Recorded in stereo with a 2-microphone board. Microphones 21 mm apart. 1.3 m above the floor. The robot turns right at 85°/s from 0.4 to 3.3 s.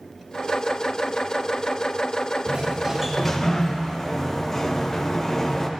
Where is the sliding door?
60° right, 0.9 m; by 5.7 s 15° left, 0.9 m.